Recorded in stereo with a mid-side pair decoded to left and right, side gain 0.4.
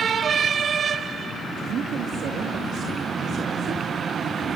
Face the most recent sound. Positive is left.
turn(degrees=-70)